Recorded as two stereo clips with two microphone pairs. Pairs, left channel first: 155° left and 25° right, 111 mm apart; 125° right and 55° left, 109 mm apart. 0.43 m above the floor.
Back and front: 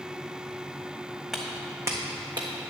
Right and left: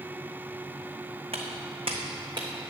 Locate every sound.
1.3 s footsteps: 65° left, 1.3 m; by 2.5 s 15° left, 1.6 m